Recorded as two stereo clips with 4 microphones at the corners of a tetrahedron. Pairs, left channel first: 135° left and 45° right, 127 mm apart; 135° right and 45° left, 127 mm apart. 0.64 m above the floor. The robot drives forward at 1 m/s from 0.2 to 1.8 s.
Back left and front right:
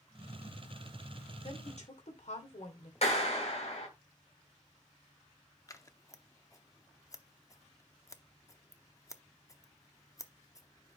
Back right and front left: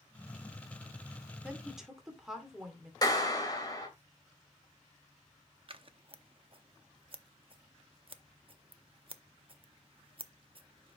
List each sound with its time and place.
1.4 s a woman speaking: 125° left, 2 m; by 2.9 s 130° left, 2.5 m
3.0 s a clap: 165° left, 2 m
5.7 s scissors: 80° left, 0.7 m